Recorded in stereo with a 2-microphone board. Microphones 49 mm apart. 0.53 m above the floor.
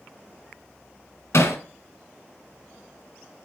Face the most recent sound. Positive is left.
turn(degrees=65)  # may be behind; listen again after turning